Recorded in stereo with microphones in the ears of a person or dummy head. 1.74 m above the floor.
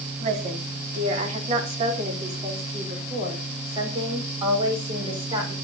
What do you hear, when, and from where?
0.2 s a woman speaking: 45° right (ahead or behind), 3.5 m; by 5.5 s 25° right (ahead or behind), 5.5 m